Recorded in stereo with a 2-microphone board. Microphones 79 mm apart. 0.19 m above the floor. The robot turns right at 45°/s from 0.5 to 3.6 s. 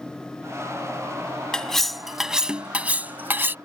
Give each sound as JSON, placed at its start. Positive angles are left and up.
{"t": 1.5, "sound": "cutlery clinking", "side_deg": 10}